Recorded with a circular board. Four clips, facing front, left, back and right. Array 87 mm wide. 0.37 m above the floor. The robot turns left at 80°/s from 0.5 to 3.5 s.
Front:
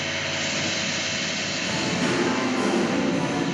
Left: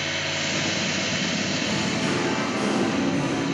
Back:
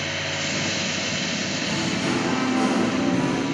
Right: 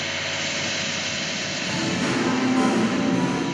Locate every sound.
1.6 s singing: 5° right, 0.7 m; by 3.5 s 150° right, 0.7 m